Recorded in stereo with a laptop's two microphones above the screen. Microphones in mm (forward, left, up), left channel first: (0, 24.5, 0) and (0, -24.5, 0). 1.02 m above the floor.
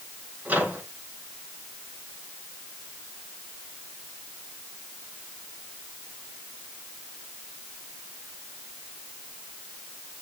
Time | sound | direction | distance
0.5 | a microwave | 35° right (ahead or behind) | 6.5 m